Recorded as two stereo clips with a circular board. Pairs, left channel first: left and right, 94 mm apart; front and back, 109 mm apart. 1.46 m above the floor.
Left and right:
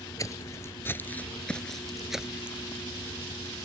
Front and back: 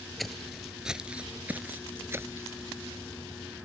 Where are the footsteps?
85° left; by 2.6 s 150° right.